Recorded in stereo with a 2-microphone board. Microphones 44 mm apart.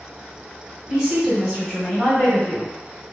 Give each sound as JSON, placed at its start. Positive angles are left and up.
{"t": 0.9, "sound": "a woman speaking", "side_deg": -5, "distance_m": 1.3}